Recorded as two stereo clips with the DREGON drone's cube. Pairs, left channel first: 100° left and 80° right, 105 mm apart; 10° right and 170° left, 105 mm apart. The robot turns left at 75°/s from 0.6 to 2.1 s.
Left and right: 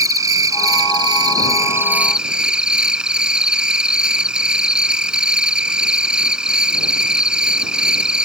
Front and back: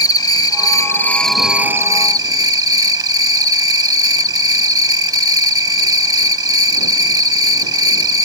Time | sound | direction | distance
0.0 | an insect | 45° right | ?